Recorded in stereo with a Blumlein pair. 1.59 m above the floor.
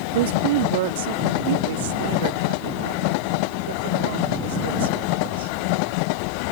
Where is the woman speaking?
55° right.